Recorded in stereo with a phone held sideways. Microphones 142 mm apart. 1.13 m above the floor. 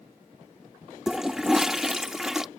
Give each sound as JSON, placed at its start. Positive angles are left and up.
{"t": 1.1, "sound": "a toilet flushing", "side_deg": -5}